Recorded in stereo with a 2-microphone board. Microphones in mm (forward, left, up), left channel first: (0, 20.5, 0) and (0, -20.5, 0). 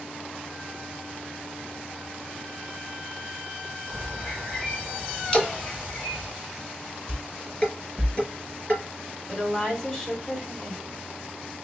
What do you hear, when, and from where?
3.9 s a bird: 40° left (ahead or behind), 4 m
5.3 s a splash: 25° left (ahead or behind), 1.3 m
7.1 s dishes clattering: 30° left (ahead or behind), 3.5 m
9.3 s a woman speaking: 20° left (ahead or behind), 1.9 m